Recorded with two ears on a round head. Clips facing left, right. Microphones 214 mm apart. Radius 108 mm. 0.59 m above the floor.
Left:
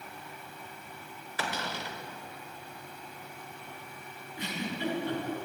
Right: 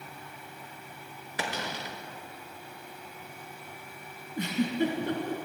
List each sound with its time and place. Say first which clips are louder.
1.4 s a cupboard door: right 1 dB; 15° right (ahead or behind), 1.1 m
4.4 s a giggle: right 8 dB; 40° right (ahead or behind), 3.5 m